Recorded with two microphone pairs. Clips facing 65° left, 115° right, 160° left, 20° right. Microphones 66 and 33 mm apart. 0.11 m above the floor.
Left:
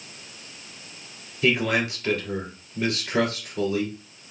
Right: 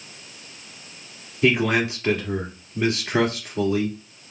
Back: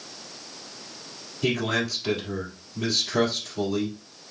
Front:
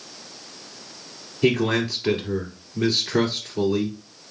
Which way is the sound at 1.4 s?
65° right.